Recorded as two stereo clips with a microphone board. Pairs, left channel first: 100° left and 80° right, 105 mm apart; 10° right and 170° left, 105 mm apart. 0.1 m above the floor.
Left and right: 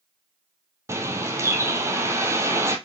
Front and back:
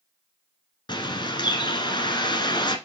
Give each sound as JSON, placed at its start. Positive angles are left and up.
{"t": 0.9, "sound": "a bird", "azimuth_deg": -25, "distance_m": 1.2}